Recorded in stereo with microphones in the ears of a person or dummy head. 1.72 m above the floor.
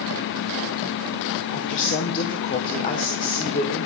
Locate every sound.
1.5 s a woman speaking: 45° left (ahead or behind), 1.0 m